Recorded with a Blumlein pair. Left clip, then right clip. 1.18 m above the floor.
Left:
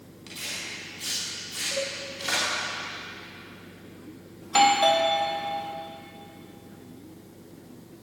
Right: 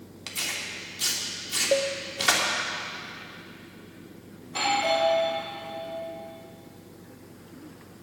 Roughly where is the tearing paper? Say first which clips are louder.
Right 3 dB; ahead right.